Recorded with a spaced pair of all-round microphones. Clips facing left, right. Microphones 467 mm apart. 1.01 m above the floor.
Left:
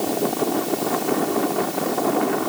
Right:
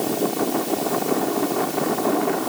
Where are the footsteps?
No footsteps in this recording.